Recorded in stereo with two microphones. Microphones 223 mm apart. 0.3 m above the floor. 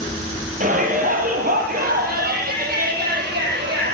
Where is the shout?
35° right (ahead or behind), 9.5 m; by 3.9 s 45° right (ahead or behind), 13.5 m.